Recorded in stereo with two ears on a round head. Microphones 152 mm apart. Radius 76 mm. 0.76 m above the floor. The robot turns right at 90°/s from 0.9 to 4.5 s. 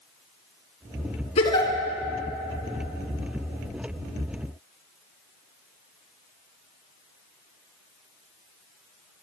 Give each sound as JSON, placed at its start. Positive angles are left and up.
{"t": 1.4, "sound": "a giggle", "azimuth_deg": 135, "distance_m": 1.5}